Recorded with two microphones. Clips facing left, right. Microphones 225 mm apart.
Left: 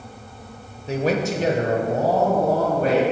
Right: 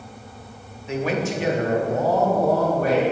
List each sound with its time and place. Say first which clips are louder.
0.9 s a man speaking: left 2 dB; 35° left (ahead or behind), 1.2 m; by 3.0 s 25° left (ahead or behind), 3 m